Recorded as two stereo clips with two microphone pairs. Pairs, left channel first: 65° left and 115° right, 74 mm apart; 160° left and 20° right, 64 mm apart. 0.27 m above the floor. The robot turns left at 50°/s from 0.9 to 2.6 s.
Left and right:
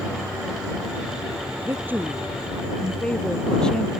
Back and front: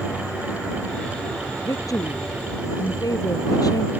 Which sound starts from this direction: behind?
A woman speaking, at 1.6 s.